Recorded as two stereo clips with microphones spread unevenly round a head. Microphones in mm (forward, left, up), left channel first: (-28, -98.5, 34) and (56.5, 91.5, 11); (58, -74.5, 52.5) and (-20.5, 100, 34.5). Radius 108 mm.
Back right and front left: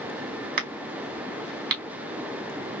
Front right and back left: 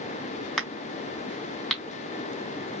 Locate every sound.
0.6 s a crack: 20° left, 2 m